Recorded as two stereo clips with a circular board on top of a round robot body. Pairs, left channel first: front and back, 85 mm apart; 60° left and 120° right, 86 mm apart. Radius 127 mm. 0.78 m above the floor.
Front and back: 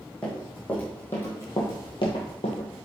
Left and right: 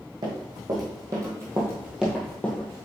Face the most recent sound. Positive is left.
turn(degrees=5)